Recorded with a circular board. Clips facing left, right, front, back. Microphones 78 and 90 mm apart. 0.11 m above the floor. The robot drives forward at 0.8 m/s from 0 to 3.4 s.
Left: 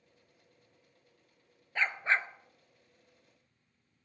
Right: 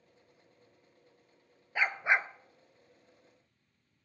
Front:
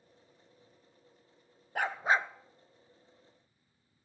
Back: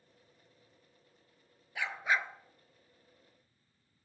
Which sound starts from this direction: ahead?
A dog barking, at 1.8 s.